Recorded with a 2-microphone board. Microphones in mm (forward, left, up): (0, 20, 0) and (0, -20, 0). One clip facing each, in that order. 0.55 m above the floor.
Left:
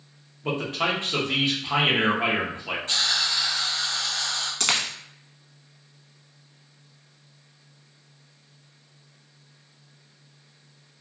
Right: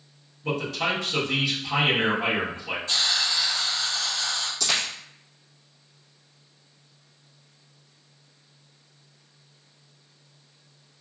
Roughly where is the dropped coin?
Left.